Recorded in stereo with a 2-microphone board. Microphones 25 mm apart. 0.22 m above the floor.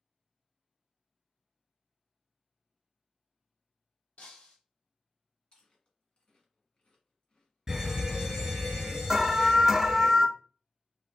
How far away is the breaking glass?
About 1.3 m.